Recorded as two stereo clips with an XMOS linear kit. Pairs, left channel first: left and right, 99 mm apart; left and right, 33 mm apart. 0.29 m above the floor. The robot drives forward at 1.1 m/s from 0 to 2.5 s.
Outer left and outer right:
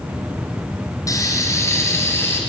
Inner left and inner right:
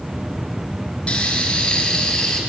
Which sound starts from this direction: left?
Frying, at 1.1 s.